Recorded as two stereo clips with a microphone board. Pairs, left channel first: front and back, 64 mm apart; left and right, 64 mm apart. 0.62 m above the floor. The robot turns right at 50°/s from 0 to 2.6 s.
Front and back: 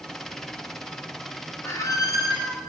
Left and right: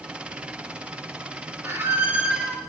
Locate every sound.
1.6 s a squeak: 45° right, 1.4 m; by 2.6 s straight ahead, 1.4 m